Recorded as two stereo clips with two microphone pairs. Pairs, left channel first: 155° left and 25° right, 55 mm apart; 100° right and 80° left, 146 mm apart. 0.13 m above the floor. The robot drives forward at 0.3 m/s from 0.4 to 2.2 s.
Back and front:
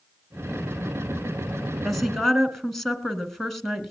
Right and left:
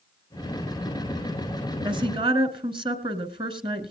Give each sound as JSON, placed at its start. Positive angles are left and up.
{"t": 1.8, "sound": "a woman speaking", "azimuth_deg": 60, "distance_m": 1.6}